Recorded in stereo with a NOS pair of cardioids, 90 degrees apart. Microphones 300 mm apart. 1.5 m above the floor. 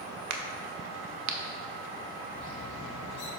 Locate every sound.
0.3 s a crack: 65° right, 1.0 m
2.3 s a bird: 65° left, 2 m